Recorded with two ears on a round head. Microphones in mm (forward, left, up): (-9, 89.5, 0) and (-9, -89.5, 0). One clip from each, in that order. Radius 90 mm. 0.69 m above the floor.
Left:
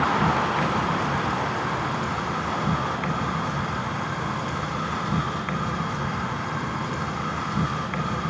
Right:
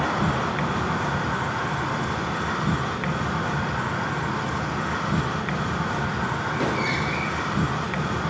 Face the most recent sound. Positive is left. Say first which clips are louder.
# left 3 dB
turn(degrees=5)  # may be behind; listen again after turning